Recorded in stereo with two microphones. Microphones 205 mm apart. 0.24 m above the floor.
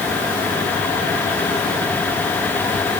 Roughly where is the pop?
No pop in this recording.